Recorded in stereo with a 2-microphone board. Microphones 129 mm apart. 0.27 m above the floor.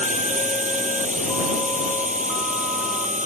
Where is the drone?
70° right (ahead or behind).